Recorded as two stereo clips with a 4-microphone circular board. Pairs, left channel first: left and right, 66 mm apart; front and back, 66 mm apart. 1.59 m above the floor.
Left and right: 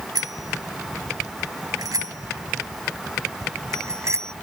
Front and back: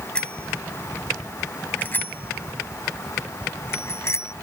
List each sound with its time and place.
0.1 s a bicycle bell: 75° right; by 4.3 s 45° right